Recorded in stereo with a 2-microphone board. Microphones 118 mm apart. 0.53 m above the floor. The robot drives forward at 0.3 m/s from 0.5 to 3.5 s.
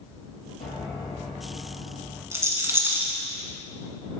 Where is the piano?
85° left, 3 m.